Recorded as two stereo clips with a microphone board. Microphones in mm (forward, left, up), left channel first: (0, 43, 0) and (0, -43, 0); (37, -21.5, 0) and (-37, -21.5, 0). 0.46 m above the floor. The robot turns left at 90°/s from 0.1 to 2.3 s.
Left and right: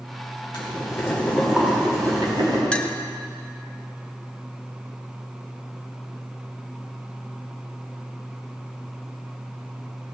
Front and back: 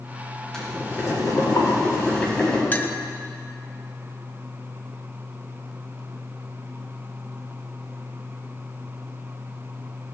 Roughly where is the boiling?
Left.